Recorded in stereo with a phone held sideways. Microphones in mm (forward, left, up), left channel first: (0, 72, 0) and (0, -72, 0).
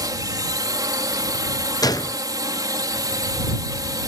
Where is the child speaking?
No child speaking in this recording.